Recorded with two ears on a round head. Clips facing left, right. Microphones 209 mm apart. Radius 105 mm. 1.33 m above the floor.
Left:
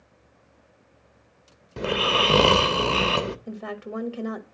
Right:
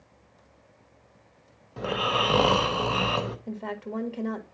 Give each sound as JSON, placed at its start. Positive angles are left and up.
{"t": 1.8, "sound": "snoring", "side_deg": 35, "distance_m": 0.7}
{"t": 3.5, "sound": "a woman speaking", "side_deg": 15, "distance_m": 1.6}